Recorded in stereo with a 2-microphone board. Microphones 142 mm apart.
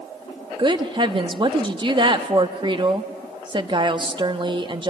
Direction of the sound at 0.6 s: 35° right (ahead or behind).